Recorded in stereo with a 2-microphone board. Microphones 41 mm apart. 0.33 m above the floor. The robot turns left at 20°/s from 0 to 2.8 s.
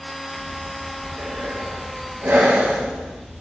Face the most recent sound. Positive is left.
turn(degrees=-50)  # may be behind; listen again after turning